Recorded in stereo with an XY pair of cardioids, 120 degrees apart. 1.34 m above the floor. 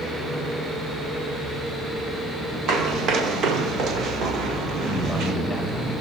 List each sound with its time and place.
2.7 s running footsteps: 65° right, 4.5 m
4.8 s a man speaking: straight ahead, 6 m